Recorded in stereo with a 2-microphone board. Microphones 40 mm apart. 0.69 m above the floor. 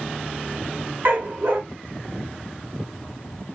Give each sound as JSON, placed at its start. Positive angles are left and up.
{"t": 1.1, "sound": "a dog barking", "side_deg": -60, "distance_m": 1.1}